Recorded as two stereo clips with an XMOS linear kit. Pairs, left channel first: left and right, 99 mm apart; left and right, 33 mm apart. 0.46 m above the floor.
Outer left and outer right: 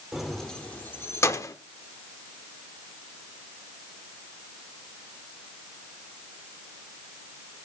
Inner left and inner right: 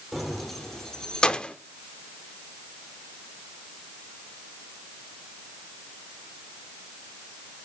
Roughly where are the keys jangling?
Centre.